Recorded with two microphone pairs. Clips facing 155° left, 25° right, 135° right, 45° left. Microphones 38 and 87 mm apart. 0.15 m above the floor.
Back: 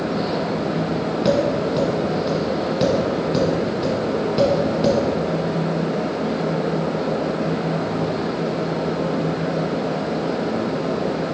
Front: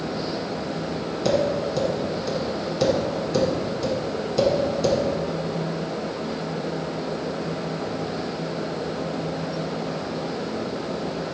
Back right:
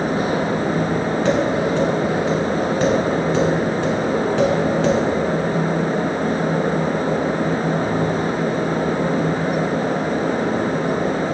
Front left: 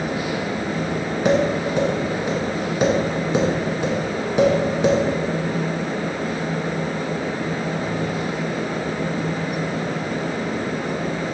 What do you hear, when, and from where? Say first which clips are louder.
1.2 s tapping: back 2 dB, front left 2 dB; 110° left, 1.4 m